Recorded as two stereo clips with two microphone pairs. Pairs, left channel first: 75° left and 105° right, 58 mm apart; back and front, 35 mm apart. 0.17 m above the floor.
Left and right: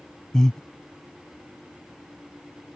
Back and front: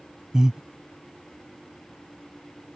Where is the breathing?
20° left.